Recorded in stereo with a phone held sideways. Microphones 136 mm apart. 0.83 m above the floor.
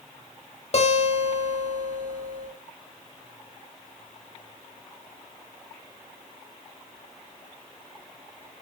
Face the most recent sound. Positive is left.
turn(degrees=50)  # may be behind; listen again after turning